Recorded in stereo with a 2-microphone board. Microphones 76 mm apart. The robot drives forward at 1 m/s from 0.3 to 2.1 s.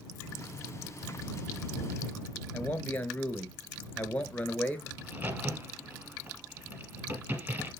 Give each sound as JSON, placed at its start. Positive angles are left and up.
{"t": 2.5, "sound": "a man speaking", "side_deg": 20, "distance_m": 2.0}
{"t": 5.0, "sound": "a crack", "side_deg": -30, "distance_m": 3.0}